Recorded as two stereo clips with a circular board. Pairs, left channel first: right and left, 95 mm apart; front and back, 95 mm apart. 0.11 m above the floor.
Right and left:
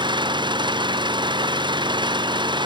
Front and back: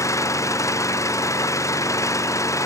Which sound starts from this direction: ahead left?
An engine running, at 0.0 s.